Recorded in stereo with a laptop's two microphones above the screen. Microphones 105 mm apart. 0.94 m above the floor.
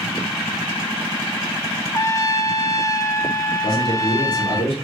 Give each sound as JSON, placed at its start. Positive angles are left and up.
{"t": 1.9, "sound": "a trumpet", "side_deg": 30, "distance_m": 0.6}
{"t": 3.6, "sound": "a man speaking", "side_deg": 70, "distance_m": 3.0}